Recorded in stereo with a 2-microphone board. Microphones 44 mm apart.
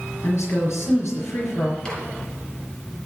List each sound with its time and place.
0.2 s a woman speaking: 70° left (ahead or behind), 4.5 m
1.9 s a microwave: 15° left (ahead or behind), 4.5 m